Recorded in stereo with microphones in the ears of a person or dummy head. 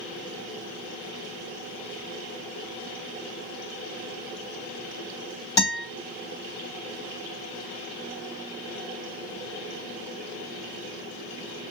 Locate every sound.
5.6 s a guitar: 20° left (ahead or behind), 3 m